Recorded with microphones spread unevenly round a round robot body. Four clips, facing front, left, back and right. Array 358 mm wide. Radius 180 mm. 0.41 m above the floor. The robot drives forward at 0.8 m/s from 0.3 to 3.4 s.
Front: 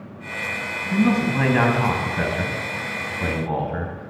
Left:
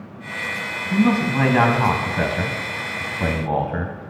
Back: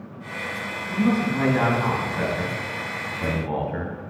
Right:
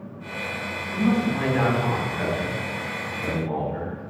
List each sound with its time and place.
0.9 s a man speaking: 50° left, 4 m; by 4.0 s 85° left, 3 m